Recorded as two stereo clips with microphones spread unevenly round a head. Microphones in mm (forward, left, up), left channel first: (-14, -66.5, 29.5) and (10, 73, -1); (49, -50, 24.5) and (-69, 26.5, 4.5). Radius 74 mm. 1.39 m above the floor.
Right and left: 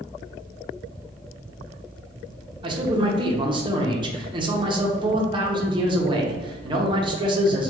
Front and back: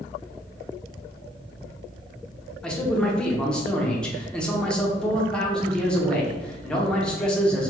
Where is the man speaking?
55° left, 0.5 m.